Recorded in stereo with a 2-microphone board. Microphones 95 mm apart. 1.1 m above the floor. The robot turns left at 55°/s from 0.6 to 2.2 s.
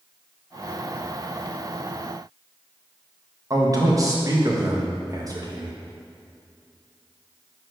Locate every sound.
3.5 s a man speaking: 40° right (ahead or behind), 1.3 m